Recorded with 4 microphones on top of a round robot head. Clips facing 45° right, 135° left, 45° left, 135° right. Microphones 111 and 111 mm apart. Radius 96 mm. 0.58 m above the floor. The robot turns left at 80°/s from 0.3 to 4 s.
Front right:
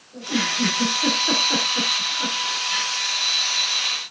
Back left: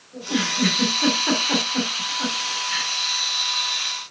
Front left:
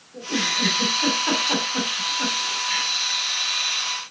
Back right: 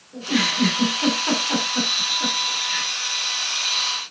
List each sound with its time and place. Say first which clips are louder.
0.1 s a giggle: back left 1 dB, back right 5 dB; 150° right, 3.5 m; by 2.9 s straight ahead, 3.5 m